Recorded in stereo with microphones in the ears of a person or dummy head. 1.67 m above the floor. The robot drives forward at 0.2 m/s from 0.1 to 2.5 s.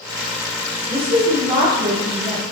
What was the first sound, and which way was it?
A woman speaking, 35° right (ahead or behind).